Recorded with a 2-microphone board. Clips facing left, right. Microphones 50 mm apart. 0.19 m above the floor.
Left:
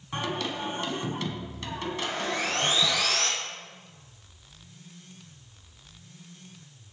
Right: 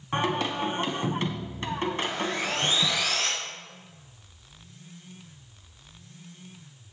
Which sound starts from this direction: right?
Singing, at 0.1 s.